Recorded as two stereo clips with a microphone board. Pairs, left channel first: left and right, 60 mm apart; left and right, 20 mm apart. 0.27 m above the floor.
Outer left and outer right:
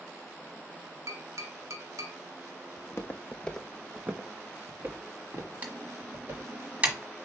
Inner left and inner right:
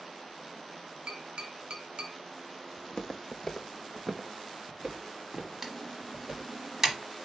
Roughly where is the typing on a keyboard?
Right.